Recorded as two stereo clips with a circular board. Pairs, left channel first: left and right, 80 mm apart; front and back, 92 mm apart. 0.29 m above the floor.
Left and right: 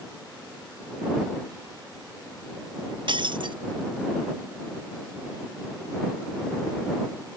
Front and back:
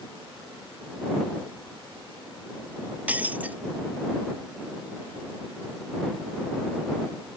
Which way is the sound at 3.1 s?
105° right.